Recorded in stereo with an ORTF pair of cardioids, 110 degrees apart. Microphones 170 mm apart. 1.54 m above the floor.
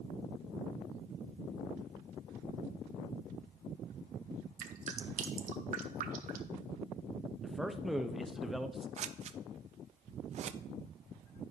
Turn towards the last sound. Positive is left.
turn(degrees=-45)